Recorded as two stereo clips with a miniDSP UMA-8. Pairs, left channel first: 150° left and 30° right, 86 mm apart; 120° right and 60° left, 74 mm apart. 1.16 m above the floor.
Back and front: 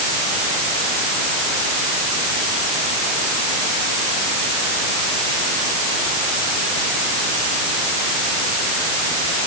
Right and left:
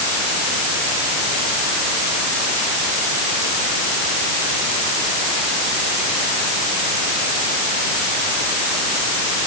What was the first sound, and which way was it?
Only background noise.